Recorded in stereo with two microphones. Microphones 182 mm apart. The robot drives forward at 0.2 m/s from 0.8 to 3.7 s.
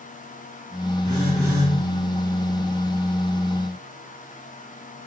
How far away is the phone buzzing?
About 2.5 m.